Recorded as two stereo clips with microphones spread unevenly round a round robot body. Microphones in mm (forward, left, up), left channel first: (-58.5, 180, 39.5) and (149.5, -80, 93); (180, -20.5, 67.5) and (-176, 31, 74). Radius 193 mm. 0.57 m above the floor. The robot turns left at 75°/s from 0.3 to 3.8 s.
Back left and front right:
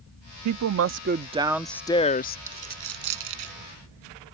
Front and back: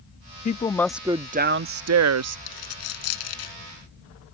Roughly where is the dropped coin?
Ahead left.